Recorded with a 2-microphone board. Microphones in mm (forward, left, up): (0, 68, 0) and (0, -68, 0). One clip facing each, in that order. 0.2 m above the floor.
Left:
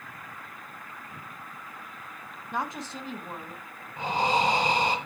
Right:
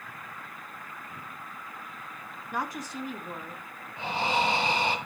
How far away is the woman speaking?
About 1.3 m.